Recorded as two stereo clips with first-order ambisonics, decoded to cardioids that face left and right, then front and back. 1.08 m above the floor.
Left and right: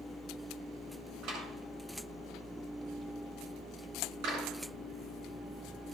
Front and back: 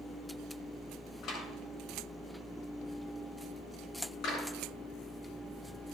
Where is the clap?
60° right, 8 m.